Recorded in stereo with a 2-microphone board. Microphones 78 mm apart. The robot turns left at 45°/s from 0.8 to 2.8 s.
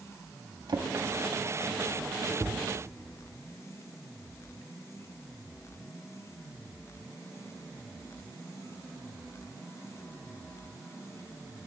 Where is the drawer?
75° right (ahead or behind), 0.5 m; by 2.6 s centre (ahead or behind), 0.5 m.